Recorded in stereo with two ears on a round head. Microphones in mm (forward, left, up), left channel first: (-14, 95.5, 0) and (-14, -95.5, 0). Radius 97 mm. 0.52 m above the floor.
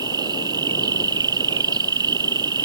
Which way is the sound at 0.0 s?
20° right (ahead or behind).